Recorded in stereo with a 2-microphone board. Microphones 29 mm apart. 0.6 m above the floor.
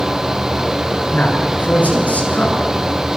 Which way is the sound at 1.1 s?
55° left (ahead or behind).